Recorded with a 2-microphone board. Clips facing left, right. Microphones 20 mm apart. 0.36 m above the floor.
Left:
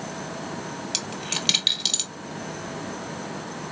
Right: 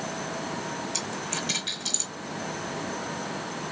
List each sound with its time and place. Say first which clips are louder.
0.9 s a dropped coin: left 2 dB; 80° left, 1.5 m